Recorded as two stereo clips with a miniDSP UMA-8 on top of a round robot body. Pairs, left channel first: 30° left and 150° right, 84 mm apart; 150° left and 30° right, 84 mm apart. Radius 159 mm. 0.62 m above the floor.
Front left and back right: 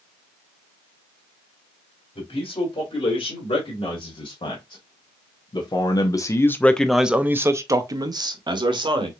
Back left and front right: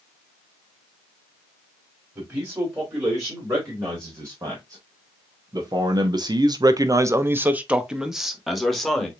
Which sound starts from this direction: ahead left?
A man speaking, at 2.1 s.